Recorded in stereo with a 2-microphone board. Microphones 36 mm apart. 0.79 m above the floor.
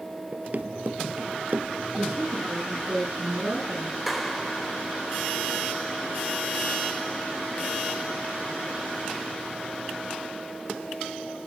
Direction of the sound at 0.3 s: 40° right (ahead or behind).